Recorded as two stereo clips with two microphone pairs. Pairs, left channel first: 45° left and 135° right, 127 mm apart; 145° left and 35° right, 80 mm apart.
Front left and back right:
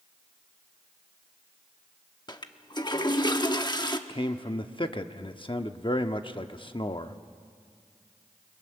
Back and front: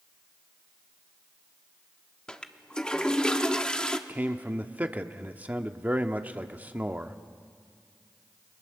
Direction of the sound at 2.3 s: 70° left.